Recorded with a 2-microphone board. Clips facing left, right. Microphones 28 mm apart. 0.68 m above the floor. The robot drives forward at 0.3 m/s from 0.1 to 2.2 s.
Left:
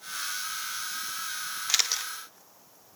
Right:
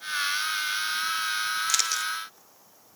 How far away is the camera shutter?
About 0.6 m.